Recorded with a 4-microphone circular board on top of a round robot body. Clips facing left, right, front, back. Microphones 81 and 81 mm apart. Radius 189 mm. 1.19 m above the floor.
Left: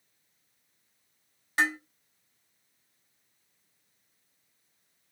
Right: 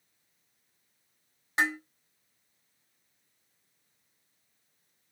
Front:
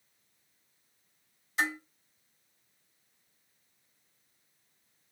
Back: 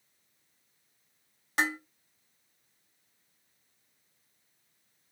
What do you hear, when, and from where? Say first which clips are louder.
1.6 s dishes clattering: left 1 dB, back 2 dB; 160° right, 1.8 m